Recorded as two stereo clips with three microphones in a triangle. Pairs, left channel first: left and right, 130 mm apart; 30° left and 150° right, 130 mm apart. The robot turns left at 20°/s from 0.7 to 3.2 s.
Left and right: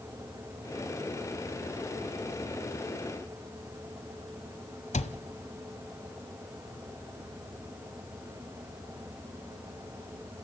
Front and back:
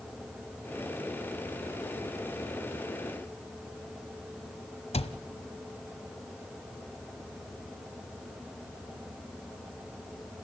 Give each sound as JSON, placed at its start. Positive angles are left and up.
{"t": 4.9, "sound": "a cupboard door", "azimuth_deg": 65, "distance_m": 1.4}